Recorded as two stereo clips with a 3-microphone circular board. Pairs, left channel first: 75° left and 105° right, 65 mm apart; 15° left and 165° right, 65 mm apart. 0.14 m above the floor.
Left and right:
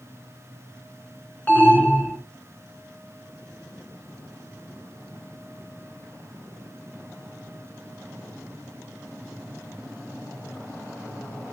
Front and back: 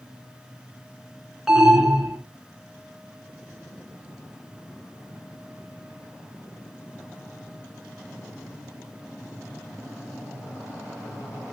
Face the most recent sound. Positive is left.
turn(degrees=115)